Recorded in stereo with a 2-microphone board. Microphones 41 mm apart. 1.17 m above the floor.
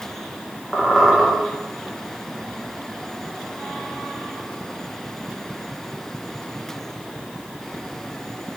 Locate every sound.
0.7 s a squeak: centre (ahead or behind), 0.8 m